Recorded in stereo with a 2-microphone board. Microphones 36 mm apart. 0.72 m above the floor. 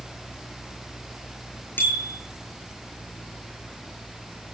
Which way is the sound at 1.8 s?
75° left (ahead or behind).